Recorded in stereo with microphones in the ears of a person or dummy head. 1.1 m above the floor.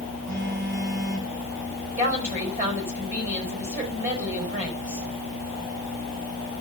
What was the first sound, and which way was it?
A phone buzzing, 65° right (ahead or behind).